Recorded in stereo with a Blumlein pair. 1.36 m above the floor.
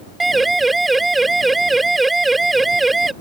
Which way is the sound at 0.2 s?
10° right.